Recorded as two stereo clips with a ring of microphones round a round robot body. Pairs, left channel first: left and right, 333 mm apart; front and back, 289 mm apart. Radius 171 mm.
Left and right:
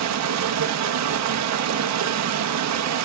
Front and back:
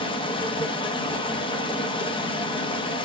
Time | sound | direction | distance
0.0 | running water | 70° right | 0.8 m